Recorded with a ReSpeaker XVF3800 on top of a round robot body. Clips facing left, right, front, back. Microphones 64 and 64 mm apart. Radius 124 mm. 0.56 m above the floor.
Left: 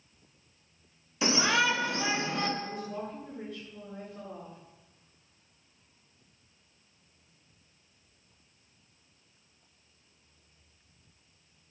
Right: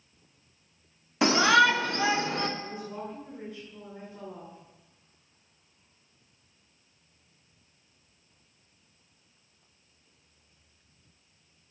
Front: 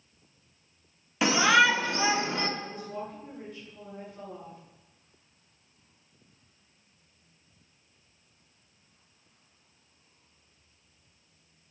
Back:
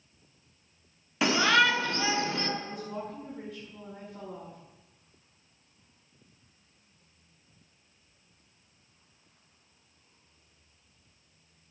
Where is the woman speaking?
160° right, 8 m.